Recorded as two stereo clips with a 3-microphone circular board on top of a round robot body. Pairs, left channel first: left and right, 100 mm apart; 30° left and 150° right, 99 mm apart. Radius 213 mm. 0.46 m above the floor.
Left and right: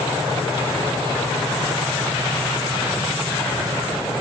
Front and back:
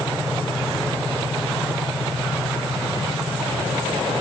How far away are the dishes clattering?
I don't hear dishes clattering.